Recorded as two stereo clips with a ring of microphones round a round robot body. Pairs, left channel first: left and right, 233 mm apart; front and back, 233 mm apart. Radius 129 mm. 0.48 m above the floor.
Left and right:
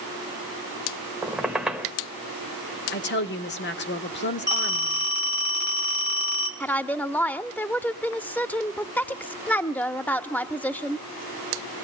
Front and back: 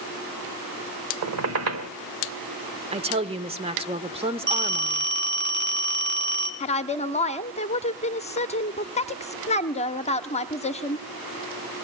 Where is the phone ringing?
140° left, 2.5 m.